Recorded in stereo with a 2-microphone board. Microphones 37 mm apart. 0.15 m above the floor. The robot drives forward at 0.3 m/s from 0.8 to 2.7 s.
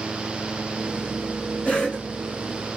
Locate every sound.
1.6 s a cough: 30° left (ahead or behind), 1.4 m